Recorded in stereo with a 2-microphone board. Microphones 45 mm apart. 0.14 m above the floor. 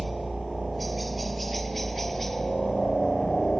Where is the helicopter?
Centre (ahead or behind); by 3.6 s 10° left (ahead or behind).